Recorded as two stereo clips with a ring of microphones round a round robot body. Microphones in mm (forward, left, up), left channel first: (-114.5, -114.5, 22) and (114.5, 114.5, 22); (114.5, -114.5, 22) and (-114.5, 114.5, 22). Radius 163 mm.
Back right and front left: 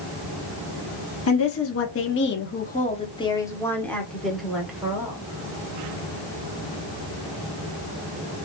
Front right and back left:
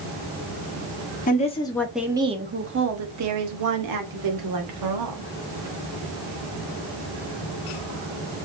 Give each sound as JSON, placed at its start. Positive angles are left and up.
{"t": 1.3, "sound": "a woman speaking", "azimuth_deg": -105, "distance_m": 1.1}